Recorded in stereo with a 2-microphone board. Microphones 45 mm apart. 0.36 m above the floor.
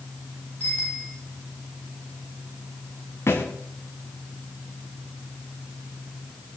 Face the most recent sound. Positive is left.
turn(degrees=75)  # may be behind; listen again after turning